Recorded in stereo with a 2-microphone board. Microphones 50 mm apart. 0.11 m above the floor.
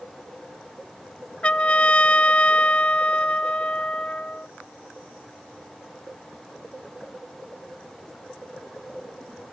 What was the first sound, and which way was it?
A trumpet, 25° left (ahead or behind).